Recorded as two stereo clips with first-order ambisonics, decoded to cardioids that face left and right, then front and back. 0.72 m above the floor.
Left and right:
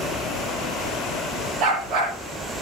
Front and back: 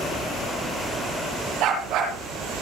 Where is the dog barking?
140° right, 7 m.